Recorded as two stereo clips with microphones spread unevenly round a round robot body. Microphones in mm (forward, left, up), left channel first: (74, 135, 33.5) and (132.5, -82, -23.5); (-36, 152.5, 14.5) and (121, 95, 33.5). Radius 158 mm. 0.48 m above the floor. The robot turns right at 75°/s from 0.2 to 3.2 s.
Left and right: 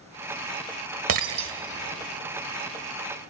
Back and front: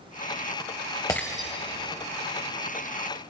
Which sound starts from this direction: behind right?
Breaking glass, at 1.1 s.